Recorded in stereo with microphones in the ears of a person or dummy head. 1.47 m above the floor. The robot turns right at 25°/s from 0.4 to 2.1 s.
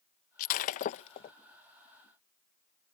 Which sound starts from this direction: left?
Breaking glass, at 0.4 s.